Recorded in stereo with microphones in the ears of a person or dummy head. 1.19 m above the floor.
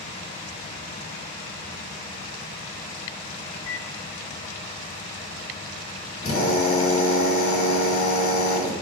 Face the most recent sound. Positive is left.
turn(degrees=50)  # may be behind; listen again after turning